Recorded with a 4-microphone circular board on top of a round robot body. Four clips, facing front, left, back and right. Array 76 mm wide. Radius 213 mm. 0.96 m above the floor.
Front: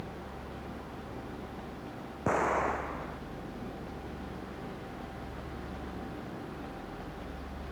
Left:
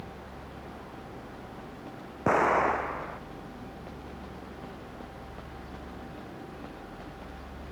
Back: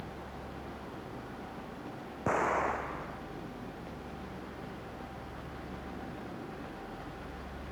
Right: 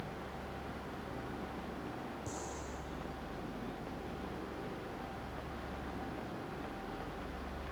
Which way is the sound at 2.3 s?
90° left.